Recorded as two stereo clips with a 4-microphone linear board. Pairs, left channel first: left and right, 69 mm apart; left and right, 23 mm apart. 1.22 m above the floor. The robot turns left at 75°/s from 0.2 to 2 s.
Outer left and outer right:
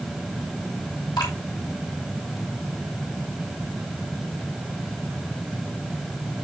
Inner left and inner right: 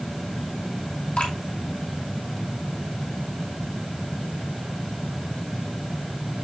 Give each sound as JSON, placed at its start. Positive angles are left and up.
{"t": 1.2, "sound": "dripping", "side_deg": 75, "distance_m": 3.0}